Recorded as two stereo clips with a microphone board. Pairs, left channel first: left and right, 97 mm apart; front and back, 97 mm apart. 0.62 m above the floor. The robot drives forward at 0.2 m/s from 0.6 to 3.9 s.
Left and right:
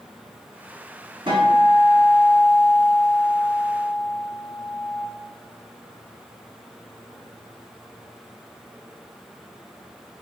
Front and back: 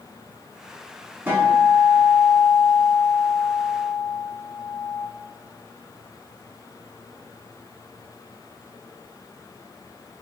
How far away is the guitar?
About 1.1 m.